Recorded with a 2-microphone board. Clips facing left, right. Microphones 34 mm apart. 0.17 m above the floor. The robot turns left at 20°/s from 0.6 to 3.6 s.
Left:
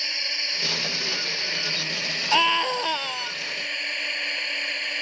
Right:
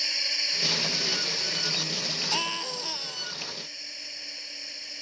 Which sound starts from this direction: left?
A scream, at 2.3 s.